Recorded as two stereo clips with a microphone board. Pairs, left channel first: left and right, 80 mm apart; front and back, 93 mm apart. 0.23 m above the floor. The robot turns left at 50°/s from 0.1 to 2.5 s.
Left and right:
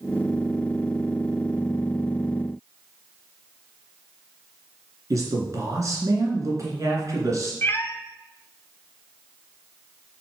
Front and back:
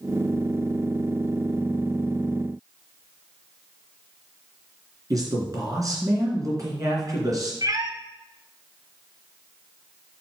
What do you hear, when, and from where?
5.1 s a man speaking: 135° right, 2.5 m
7.6 s a cat meowing: 145° left, 0.6 m